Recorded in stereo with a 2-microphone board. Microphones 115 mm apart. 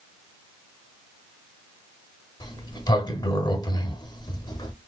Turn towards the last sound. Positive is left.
turn(degrees=40)  # may be behind; listen again after turning